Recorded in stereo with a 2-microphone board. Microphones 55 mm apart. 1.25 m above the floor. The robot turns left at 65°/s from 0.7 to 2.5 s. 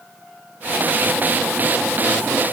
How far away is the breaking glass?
I don't hear breaking glass.